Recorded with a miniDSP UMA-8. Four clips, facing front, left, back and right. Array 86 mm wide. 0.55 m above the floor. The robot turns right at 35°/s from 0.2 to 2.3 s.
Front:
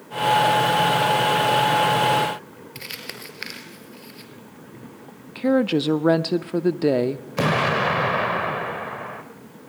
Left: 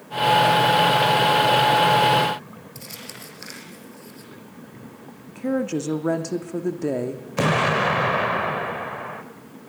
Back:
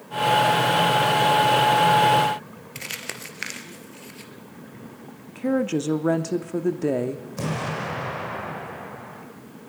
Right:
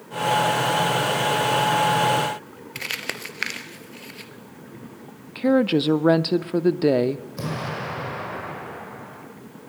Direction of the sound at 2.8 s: 100° right.